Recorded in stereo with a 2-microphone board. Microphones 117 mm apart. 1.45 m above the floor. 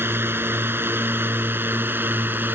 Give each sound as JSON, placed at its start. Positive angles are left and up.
{"t": 0.0, "sound": "a drone", "side_deg": -20}